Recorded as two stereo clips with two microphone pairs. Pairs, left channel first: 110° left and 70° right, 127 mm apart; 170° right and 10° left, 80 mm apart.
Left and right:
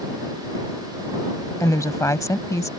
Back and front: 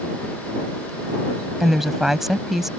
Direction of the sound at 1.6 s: 95° left.